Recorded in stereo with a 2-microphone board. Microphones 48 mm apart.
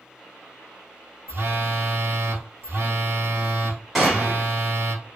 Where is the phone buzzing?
50° right (ahead or behind), 1.0 m.